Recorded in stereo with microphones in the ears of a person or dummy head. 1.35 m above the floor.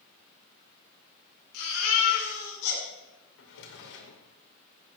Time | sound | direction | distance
1.5 | a baby crying | 80° left | 3.5 m
3.4 | a drawer | 65° left (ahead or behind) | 1.9 m